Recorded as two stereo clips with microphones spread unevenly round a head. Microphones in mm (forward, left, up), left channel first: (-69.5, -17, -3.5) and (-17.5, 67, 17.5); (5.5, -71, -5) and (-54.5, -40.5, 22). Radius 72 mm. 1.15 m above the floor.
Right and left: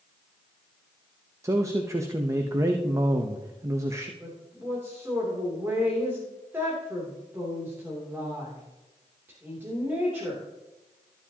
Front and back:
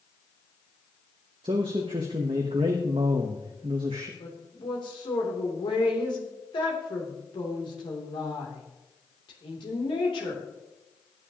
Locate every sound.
1.4 s a man speaking: 120° left, 0.8 m
4.2 s a woman speaking: 20° right, 3 m